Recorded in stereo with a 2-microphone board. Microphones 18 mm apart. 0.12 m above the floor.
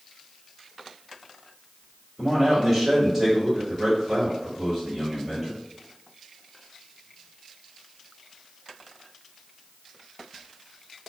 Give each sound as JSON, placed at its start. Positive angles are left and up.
{"t": 2.2, "sound": "a man speaking", "side_deg": -10, "distance_m": 1.9}